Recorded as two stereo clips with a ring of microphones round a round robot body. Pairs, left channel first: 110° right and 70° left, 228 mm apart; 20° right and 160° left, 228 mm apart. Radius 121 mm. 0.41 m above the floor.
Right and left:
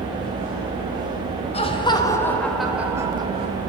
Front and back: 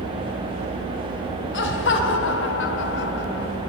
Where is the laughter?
50° right, 2.5 m; by 3.5 s 10° left, 2 m.